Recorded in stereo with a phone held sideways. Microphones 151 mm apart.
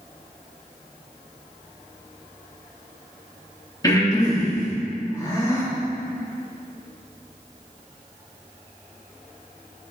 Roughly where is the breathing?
Left.